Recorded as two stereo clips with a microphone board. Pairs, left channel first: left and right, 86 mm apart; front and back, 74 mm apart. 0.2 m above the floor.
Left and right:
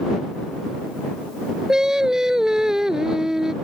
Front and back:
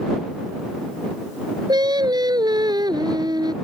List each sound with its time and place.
1.7 s singing: 175° right